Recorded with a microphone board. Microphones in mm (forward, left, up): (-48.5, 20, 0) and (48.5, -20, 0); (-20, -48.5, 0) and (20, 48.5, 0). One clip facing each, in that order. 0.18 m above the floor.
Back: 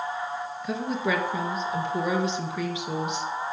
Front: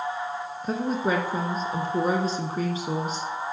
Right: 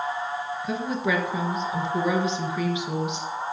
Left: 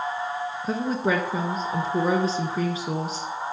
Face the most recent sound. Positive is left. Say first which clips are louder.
# front 2 dB, left 3 dB
turn(degrees=20)